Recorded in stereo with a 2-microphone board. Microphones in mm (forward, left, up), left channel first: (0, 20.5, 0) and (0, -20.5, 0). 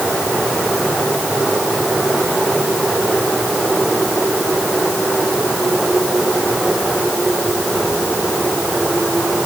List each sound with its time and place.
Only background noise.